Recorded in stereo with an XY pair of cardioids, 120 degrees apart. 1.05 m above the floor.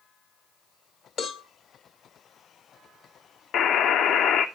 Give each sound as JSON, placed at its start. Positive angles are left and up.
{"t": 1.2, "sound": "a cowbell", "azimuth_deg": 60, "distance_m": 1.1}
{"t": 3.5, "sound": "a buzzer", "azimuth_deg": 70, "distance_m": 0.7}